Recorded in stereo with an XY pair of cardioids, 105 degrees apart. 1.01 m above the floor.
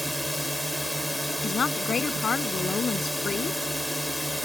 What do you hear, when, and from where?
0.0 s a drone: straight ahead
1.4 s a woman speaking: 40° left